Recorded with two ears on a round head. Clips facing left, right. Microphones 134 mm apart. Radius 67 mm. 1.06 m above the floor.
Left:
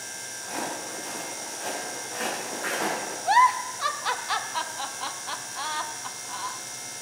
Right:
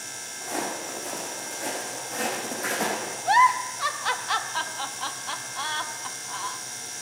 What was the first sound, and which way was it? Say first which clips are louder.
Footsteps: right 2 dB; 45° right (ahead or behind).